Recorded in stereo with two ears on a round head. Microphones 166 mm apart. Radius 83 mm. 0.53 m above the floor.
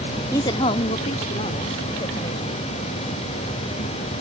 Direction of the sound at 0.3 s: 15° left (ahead or behind).